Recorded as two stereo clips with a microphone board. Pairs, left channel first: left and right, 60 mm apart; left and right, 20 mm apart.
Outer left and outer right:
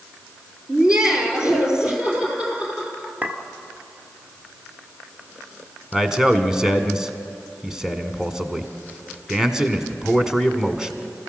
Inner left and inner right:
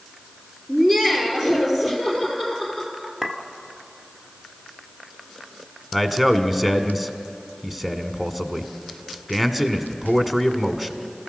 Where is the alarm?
No alarm in this recording.